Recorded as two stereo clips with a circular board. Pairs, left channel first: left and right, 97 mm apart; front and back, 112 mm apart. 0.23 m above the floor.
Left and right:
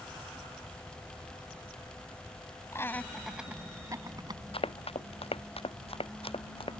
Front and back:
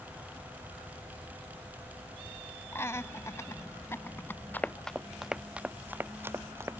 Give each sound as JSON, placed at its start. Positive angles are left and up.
{"t": 2.7, "sound": "laughter", "azimuth_deg": 55}
{"t": 4.5, "sound": "running footsteps", "azimuth_deg": 75}